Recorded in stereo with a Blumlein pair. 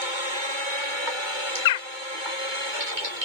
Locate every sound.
1.6 s a bird: 55° left, 0.5 m